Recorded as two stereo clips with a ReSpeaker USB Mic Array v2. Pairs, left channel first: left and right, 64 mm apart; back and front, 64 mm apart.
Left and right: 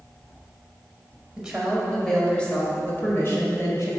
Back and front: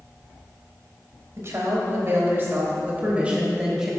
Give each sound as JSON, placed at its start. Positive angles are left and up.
{"t": 1.4, "sound": "a woman speaking", "azimuth_deg": -5, "distance_m": 2.0}